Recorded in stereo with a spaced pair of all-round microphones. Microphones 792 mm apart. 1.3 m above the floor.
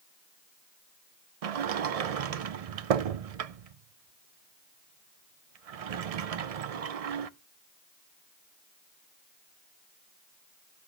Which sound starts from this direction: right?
A sliding door, at 1.4 s.